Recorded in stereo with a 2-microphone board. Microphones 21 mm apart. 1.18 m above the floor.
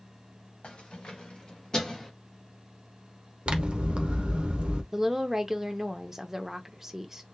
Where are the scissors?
50° right (ahead or behind), 0.7 m.